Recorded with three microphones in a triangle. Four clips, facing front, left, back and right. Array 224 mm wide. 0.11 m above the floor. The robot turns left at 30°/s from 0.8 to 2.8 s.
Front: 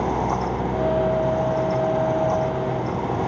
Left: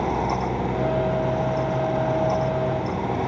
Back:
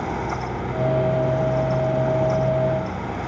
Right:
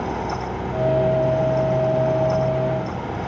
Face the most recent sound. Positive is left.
No sound to turn to.